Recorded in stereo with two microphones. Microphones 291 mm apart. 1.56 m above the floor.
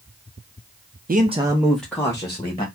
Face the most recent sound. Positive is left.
turn(degrees=20)  # may be behind; listen again after turning